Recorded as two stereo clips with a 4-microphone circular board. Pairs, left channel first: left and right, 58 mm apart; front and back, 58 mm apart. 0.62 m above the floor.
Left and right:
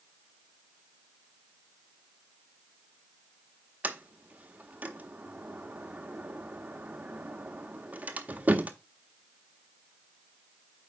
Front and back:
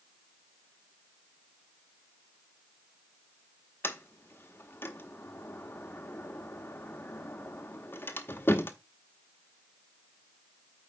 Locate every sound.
3.8 s a sliding door: 35° right, 1.0 m